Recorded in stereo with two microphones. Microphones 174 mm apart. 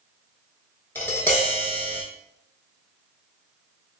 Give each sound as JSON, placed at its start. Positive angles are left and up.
{"t": 0.9, "sound": "tapping", "side_deg": 10, "distance_m": 0.8}